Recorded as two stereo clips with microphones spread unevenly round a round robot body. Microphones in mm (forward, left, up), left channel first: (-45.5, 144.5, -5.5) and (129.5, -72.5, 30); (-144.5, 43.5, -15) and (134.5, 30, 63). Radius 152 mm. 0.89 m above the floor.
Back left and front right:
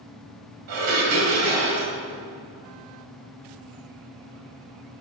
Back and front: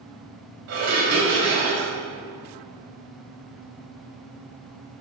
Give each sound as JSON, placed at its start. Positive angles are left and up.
{"t": 0.7, "sound": "dishes clattering", "azimuth_deg": -45, "distance_m": 3.5}